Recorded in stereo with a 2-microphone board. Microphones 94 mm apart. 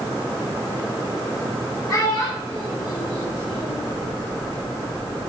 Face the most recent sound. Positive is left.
turn(degrees=60)  # may be behind; listen again after turning